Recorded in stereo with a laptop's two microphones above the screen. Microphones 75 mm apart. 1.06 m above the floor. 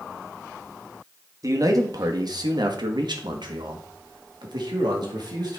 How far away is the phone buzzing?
I don't hear a phone buzzing.